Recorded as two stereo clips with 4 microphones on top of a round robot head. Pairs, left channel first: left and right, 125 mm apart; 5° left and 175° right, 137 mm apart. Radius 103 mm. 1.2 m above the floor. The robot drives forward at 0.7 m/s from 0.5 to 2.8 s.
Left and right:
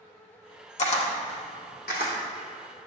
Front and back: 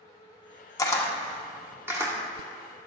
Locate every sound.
0.8 s a camera shutter: 70° left, 1.1 m; by 2.1 s 125° left, 1.3 m